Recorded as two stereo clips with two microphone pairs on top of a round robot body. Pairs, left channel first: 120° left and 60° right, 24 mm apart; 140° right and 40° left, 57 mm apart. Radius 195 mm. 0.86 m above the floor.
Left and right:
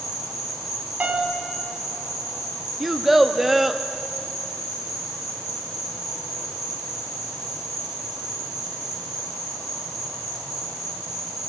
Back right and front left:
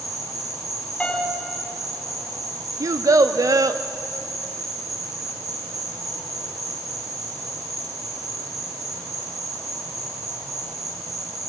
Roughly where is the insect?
Ahead.